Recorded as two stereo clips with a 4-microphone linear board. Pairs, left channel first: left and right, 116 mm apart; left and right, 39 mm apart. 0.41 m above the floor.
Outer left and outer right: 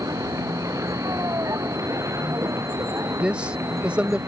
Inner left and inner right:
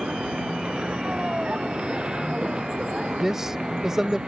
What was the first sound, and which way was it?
A vehicle, 25° right (ahead or behind).